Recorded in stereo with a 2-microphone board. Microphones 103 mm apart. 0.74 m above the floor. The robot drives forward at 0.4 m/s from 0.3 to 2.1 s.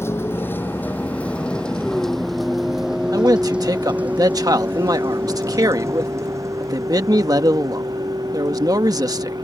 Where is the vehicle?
25° left (ahead or behind); by 9.4 s 40° right (ahead or behind).